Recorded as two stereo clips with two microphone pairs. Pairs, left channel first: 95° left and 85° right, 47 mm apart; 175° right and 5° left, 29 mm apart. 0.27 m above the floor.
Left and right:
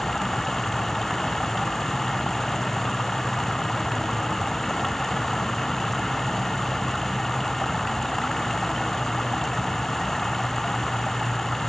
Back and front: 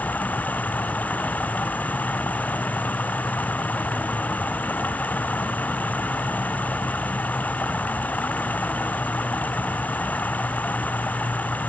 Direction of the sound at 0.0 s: 175° left.